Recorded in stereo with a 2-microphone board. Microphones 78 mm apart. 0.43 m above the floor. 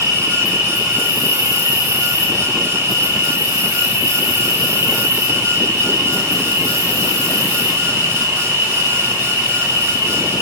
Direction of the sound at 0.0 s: 45° right (ahead or behind).